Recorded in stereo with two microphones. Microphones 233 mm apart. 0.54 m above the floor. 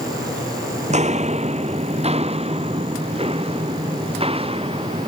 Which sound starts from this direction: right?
Footsteps, at 0.9 s.